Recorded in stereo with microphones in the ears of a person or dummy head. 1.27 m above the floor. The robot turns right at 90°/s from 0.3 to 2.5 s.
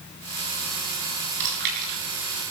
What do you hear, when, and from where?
1.4 s chewing: 75° right (ahead or behind), 7.5 m; by 1.9 s 30° right (ahead or behind), 7.5 m